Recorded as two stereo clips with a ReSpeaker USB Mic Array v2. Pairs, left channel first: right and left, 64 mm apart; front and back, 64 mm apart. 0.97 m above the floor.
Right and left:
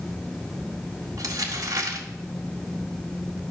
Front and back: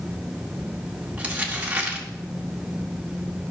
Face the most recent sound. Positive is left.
turn(degrees=110)